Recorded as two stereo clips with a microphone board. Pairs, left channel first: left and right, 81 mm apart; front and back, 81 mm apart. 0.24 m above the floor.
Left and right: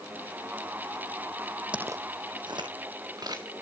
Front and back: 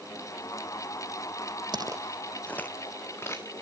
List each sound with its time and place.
1.7 s footsteps: 165° right, 0.6 m; by 3.5 s 55° right, 2 m